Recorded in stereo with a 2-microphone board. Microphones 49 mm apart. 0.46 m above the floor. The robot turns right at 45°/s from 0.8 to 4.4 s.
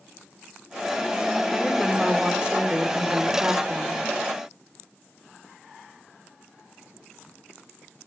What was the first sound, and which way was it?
A woman speaking, straight behind.